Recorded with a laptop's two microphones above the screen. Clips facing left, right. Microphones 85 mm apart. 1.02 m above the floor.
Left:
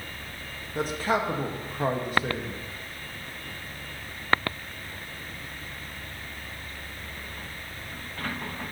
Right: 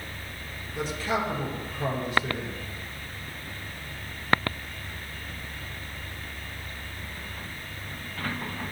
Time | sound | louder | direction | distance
0.8 | a man speaking | left 2 dB | 45° left (ahead or behind) | 1.1 m